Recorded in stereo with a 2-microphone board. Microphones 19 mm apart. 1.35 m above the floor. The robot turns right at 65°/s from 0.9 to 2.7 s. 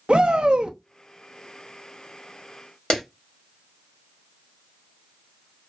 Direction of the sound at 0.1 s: 75° right (ahead or behind).